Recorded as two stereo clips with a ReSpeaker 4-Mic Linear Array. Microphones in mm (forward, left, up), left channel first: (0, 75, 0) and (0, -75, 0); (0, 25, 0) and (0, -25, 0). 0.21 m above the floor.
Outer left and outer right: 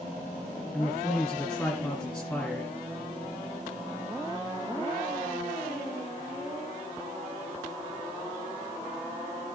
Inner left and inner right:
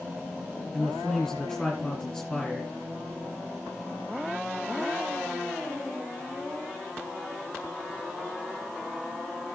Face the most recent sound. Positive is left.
turn(degrees=10)  # may be behind; listen again after turning